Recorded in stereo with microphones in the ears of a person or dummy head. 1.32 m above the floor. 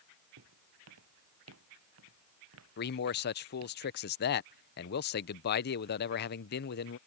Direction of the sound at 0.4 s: 85° right.